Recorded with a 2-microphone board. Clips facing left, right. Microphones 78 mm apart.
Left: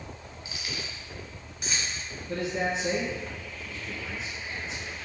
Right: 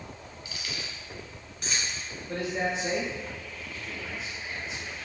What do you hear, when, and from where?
0.5 s keys jangling: 25° left (ahead or behind), 1.1 m; by 2.0 s centre (ahead or behind), 1.6 m
2.3 s a man speaking: 15° right (ahead or behind), 1.7 m